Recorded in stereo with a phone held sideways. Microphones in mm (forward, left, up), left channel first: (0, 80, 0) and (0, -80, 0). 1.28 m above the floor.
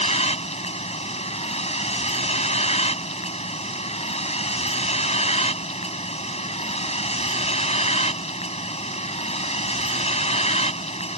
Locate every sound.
0.0 s a vehicle: 40° left (ahead or behind)